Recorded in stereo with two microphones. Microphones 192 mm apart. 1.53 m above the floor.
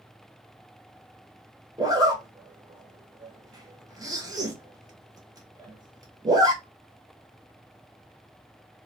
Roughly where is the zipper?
Centre.